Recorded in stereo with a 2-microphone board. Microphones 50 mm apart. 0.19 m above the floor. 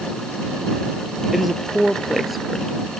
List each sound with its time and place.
1.3 s a woman speaking: centre (ahead or behind)